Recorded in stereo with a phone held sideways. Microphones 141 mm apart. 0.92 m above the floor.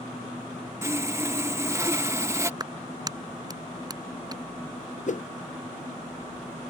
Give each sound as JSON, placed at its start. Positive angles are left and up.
{"t": 0.8, "sound": "sawing", "side_deg": -20}
{"t": 2.6, "sound": "a clap", "side_deg": -30}
{"t": 5.1, "sound": "a whoosh", "side_deg": 60}